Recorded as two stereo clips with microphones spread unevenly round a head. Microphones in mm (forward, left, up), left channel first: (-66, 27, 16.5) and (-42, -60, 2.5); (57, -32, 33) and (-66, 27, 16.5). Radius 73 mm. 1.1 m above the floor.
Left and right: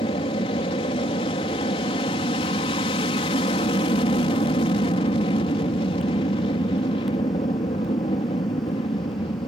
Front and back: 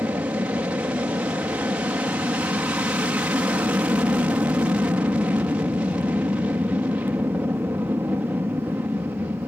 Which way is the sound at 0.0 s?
80° left.